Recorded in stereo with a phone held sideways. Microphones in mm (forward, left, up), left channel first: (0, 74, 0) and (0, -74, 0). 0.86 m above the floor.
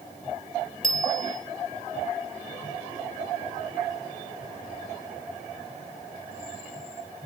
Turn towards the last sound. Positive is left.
turn(degrees=-55)  # may be behind; listen again after turning